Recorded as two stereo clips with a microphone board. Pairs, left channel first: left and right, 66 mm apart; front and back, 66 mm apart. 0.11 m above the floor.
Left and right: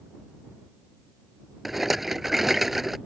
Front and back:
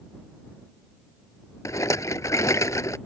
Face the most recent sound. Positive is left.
turn(degrees=-5)